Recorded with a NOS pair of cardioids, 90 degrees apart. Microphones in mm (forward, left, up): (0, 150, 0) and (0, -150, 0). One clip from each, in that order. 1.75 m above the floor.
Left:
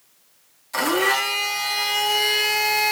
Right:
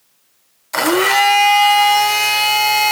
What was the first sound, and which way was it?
A blender, 45° right.